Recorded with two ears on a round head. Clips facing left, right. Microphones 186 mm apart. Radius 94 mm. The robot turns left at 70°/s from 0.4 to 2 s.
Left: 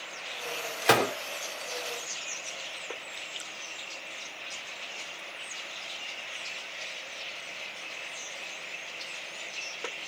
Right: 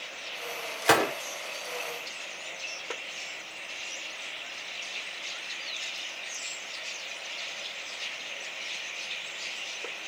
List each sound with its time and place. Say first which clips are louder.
0.8 s a gunshot: even; 5° left (ahead or behind), 1.0 m; by 1.1 s 15° right (ahead or behind), 1.0 m